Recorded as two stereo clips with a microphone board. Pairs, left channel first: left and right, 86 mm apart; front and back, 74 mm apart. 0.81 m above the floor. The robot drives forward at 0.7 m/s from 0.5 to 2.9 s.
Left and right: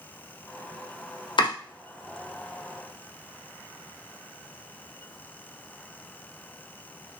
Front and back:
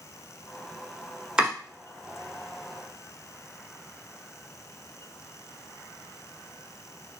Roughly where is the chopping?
Left.